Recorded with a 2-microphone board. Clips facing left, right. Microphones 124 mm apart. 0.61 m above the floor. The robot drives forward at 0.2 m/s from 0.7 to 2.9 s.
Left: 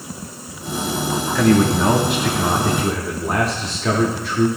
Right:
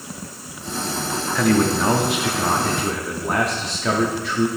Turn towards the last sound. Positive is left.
turn(degrees=0)  # may be behind; listen again after turning